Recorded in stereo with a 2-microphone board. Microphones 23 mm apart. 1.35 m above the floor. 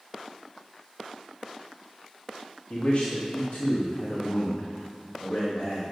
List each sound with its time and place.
2.7 s a man speaking: 65° left (ahead or behind), 2 m